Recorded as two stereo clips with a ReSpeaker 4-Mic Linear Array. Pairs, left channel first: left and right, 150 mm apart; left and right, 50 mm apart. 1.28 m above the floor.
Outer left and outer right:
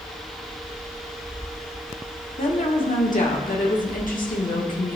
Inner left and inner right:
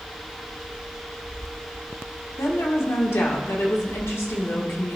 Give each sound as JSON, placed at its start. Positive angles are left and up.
{"t": 2.4, "sound": "a woman speaking", "side_deg": 65, "distance_m": 1.4}